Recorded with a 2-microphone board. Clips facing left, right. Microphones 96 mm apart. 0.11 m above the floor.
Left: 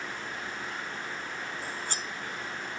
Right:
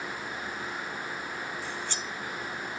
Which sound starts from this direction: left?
Cutlery clinking, at 1.6 s.